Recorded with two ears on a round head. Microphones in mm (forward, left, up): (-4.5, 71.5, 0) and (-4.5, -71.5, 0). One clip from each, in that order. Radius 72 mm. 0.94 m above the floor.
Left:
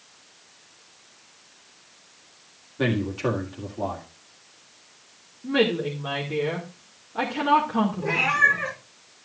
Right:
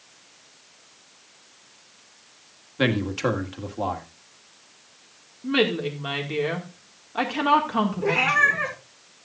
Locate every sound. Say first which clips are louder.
2.8 s a man speaking: right 2 dB; 60° right (ahead or behind), 1.7 m
5.4 s a woman speaking: even; 55° right (ahead or behind), 2 m
8.0 s a cat meowing: right 1 dB; 25° right (ahead or behind), 4.5 m